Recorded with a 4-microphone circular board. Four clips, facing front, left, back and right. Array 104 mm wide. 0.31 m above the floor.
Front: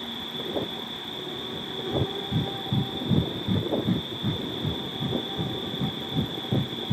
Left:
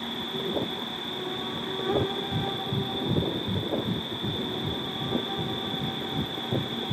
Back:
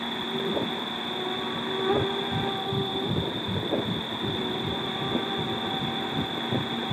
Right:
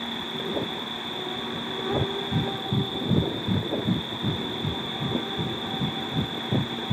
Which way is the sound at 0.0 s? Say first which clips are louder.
Even, back 5 dB; 175° left.